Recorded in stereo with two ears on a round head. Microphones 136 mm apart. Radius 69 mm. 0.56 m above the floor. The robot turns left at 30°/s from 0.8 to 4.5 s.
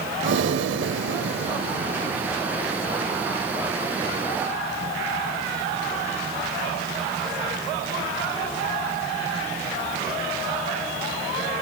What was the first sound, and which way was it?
Breathing, 85° right.